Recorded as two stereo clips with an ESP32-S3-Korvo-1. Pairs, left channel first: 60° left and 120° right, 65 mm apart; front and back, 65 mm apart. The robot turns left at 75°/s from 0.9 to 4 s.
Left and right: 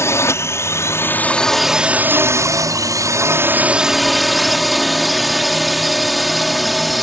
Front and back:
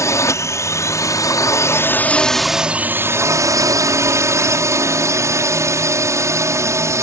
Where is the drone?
25° left; by 7.0 s 155° left.